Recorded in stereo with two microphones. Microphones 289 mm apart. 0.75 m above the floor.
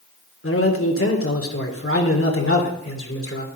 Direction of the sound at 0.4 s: 55° left (ahead or behind).